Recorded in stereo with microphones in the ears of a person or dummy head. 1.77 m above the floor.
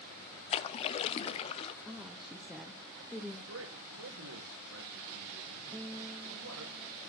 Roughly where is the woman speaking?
Centre.